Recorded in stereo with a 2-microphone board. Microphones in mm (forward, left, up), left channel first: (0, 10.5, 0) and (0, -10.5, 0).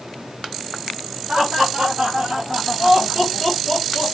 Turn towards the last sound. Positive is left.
turn(degrees=40)  # may be behind; listen again after turning